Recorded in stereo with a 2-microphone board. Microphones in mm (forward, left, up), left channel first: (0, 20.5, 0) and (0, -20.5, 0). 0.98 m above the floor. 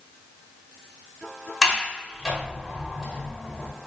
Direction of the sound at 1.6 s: 5° right (ahead or behind).